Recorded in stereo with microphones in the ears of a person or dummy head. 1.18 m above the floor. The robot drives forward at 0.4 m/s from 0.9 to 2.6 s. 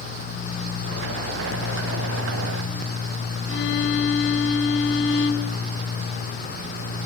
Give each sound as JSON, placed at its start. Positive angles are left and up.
{"t": 3.5, "sound": "a violin", "side_deg": 65, "distance_m": 3.0}